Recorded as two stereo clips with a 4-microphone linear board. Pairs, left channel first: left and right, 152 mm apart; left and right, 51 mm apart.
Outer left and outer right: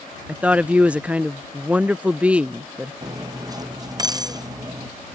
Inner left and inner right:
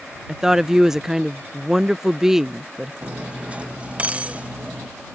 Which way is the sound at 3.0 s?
25° right (ahead or behind).